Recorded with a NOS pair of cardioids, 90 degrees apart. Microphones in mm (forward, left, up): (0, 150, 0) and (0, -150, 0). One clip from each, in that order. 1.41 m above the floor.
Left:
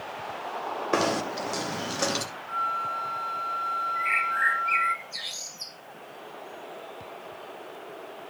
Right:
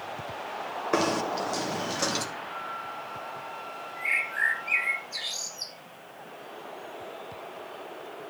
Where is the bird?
10° right, 2 m.